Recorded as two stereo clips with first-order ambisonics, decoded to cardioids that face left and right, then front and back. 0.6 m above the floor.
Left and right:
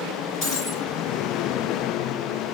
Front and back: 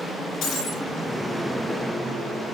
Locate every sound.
0.4 s breaking glass: 45° left, 7 m